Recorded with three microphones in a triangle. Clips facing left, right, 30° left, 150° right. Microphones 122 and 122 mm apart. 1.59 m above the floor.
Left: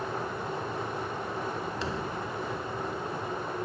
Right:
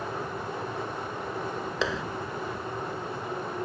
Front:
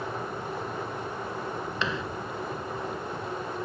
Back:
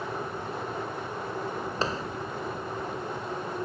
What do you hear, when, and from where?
1.8 s a clap: 95° right